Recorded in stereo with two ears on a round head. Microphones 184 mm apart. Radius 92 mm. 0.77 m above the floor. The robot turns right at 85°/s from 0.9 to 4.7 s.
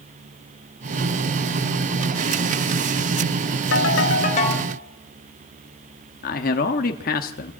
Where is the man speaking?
45° left (ahead or behind), 1.1 m.